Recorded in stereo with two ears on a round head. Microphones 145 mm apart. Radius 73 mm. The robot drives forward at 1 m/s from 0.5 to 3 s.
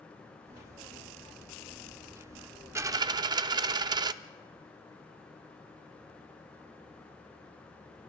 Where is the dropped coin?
15° right (ahead or behind), 0.7 m; by 4.1 s 25° right (ahead or behind), 0.5 m.